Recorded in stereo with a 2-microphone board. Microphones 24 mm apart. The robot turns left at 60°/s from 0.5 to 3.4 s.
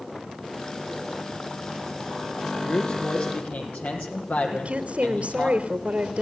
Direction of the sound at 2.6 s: 155° left.